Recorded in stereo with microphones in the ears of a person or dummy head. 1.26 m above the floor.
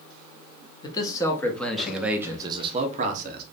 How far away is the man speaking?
About 1.2 m.